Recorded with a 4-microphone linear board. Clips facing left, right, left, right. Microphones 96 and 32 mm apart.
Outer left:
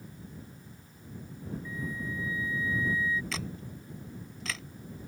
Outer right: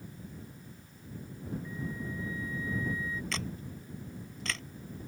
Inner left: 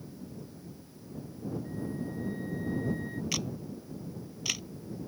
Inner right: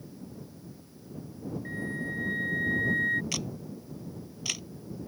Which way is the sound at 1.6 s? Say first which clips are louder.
Outer left 2 dB, inner right 3 dB; 55° right (ahead or behind).